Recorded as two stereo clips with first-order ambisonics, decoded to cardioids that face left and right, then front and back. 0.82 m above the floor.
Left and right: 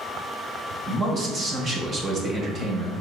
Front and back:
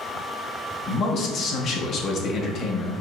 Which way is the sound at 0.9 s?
35° right.